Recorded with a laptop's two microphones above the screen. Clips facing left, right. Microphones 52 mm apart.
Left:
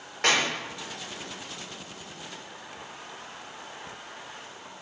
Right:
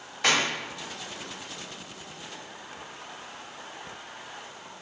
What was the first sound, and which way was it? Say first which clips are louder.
A clap: even; 55° left (ahead or behind).